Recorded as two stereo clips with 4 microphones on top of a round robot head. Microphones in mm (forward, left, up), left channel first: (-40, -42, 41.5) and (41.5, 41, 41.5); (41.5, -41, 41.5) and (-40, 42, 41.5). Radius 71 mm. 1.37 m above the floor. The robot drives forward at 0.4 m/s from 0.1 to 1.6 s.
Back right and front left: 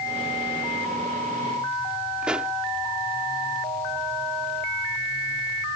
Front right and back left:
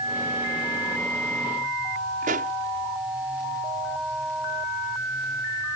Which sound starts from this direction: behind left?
A pop, at 2.2 s.